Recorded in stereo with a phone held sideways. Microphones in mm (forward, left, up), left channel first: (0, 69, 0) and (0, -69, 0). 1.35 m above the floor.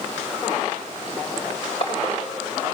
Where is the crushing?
50° left (ahead or behind), 3 m.